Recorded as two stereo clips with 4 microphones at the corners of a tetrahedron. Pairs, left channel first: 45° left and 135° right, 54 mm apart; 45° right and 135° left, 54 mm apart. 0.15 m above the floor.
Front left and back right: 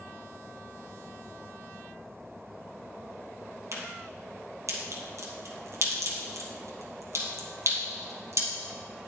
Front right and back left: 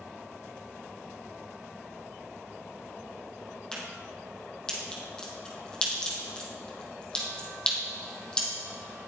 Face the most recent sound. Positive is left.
turn(degrees=-120)